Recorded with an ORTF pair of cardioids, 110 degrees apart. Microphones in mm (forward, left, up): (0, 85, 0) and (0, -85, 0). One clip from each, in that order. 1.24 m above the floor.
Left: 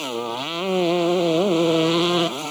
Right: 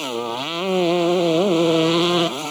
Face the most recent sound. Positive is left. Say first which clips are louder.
# right 2 dB
turn(degrees=-10)